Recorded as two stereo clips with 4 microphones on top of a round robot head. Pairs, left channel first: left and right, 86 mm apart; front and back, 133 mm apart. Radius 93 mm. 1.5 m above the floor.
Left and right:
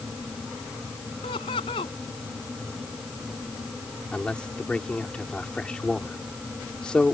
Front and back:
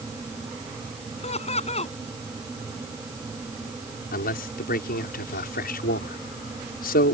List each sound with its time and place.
1.2 s laughter: 40° left
4.1 s a man speaking: 5° left